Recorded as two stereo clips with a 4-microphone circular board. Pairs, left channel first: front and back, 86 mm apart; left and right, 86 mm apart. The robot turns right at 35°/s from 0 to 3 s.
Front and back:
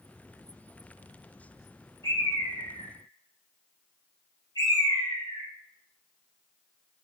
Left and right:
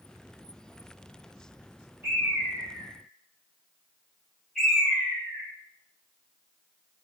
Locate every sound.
2.0 s a bird: 30° right, 1.6 m; by 5.5 s 5° left, 1.6 m